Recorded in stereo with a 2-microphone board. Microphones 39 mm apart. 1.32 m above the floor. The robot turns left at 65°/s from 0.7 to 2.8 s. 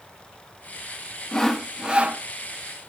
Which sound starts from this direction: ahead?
Sawing, at 1.3 s.